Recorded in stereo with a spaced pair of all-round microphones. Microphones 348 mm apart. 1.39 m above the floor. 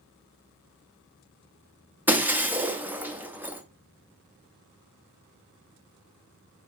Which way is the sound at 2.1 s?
5° right (ahead or behind).